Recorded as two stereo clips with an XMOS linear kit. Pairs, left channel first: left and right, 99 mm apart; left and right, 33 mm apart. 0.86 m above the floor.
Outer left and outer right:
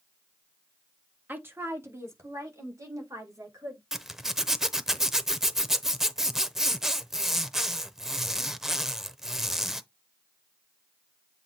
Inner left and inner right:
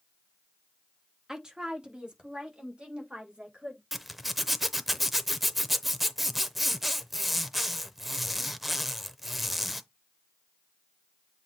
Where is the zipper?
5° right (ahead or behind), 0.7 m.